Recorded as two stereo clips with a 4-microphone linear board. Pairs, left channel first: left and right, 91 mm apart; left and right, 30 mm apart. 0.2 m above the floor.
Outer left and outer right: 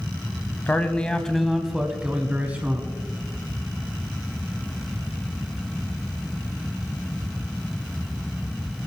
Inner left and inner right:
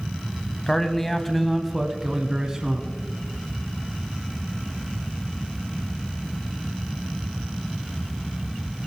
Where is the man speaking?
20° left (ahead or behind), 1.1 m; by 3.0 s 25° right (ahead or behind), 1.7 m.